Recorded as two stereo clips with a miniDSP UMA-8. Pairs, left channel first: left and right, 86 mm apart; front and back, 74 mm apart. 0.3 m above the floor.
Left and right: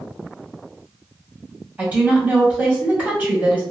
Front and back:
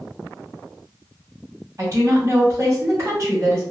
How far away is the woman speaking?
About 1.5 m.